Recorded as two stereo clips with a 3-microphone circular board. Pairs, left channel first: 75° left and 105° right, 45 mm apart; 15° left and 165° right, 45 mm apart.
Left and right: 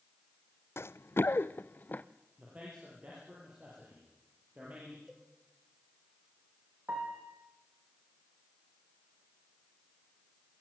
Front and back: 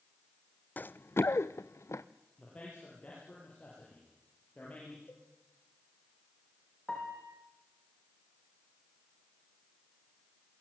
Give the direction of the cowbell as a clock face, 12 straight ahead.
1 o'clock.